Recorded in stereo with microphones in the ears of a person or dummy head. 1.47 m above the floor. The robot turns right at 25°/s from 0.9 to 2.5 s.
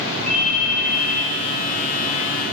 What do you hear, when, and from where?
0.3 s a ringtone: 60° right (ahead or behind), 2.5 m; by 1.2 s 65° right (ahead or behind), 2.5 m